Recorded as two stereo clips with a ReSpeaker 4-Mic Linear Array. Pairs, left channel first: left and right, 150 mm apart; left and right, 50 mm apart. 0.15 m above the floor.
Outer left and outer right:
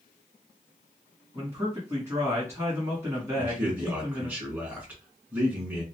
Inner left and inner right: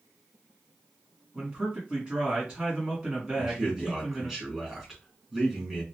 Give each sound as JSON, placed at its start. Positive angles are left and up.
{"t": 1.4, "sound": "a man speaking", "side_deg": -20, "distance_m": 1.2}
{"t": 3.4, "sound": "a man speaking", "side_deg": -10, "distance_m": 1.7}